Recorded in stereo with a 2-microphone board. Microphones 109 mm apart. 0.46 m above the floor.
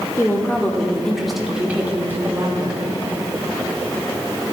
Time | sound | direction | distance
0.2 | a woman speaking | 25° left (ahead or behind) | 1.4 m